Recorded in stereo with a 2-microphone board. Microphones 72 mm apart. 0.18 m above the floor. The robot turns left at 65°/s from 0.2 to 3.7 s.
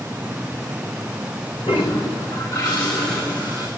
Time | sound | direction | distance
1.7 | a toilet flushing | 95° left | 7 m